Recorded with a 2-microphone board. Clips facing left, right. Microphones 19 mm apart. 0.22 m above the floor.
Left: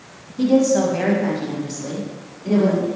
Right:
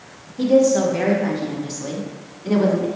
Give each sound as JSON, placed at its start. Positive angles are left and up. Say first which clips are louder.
{"t": 0.4, "sound": "a woman speaking", "louder": "right 1 dB", "side_deg": 20, "distance_m": 1.1}